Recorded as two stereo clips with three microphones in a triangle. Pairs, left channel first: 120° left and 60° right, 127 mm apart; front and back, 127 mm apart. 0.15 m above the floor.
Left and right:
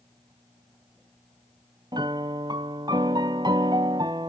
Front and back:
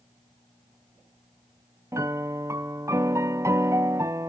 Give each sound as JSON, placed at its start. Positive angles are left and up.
{"t": 1.9, "sound": "a piano", "azimuth_deg": -115, "distance_m": 0.6}